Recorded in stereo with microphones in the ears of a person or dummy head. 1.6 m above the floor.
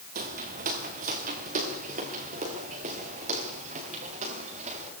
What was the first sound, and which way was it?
Footsteps, 50° right (ahead or behind).